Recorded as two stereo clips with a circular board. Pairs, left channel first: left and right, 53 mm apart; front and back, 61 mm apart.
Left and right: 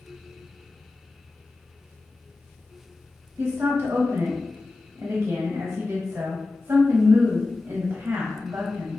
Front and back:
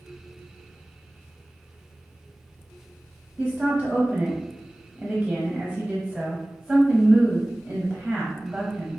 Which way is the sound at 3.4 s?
100° right.